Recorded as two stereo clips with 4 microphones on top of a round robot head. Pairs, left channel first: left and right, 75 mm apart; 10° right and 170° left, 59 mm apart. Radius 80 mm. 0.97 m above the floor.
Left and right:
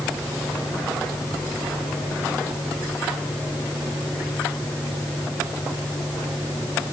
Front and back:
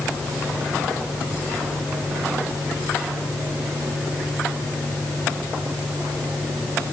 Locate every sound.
Only background noise.